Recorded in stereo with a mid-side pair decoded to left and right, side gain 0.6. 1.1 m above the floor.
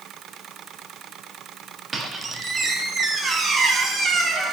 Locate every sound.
1.9 s a squeak: 35° right, 1.6 m